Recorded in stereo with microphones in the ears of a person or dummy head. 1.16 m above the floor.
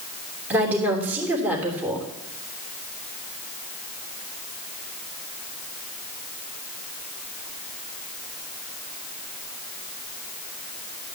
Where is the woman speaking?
15° right (ahead or behind), 3 m.